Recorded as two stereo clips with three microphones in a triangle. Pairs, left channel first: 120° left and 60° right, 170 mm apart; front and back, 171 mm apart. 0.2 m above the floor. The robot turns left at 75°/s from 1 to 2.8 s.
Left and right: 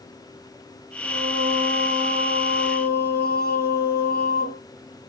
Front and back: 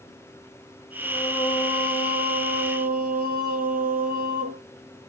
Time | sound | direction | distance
1.0 | singing | 75° right | 4.5 m